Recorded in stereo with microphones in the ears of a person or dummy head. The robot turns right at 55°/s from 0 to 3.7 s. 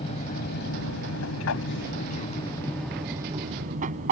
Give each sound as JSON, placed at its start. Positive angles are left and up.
{"t": 0.0, "sound": "an aircraft", "side_deg": 30}